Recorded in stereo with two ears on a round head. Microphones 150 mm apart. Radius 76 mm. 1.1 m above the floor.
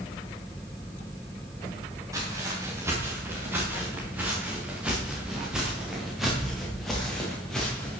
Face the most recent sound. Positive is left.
turn(degrees=5)  # may be behind; listen again after turning